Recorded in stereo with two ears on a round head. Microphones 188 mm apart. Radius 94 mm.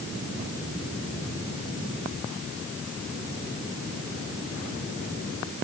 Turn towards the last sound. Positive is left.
No sound to turn to.